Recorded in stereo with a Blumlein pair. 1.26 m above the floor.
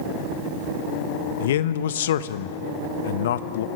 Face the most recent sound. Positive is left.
turn(degrees=60)